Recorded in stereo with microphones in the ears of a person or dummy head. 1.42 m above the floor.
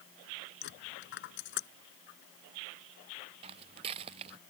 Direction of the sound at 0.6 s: 60° left (ahead or behind).